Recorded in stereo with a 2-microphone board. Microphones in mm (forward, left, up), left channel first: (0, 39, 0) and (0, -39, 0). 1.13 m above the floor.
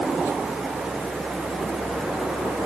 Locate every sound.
Only background noise.